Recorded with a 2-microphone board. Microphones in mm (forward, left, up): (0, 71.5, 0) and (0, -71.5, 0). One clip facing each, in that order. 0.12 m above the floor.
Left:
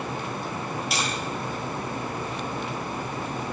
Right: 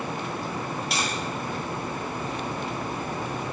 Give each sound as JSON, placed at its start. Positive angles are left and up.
{"t": 0.9, "sound": "tapping", "side_deg": 0, "distance_m": 0.7}